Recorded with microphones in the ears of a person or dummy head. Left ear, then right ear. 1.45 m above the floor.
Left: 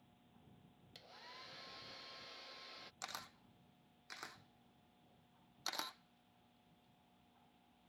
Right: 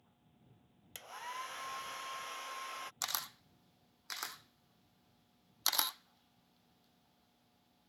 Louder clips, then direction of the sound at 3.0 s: Right 8 dB; 45° right (ahead or behind).